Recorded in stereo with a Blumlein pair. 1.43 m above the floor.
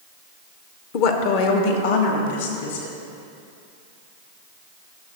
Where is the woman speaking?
45° left, 0.9 m; by 2.9 s 60° left, 3 m.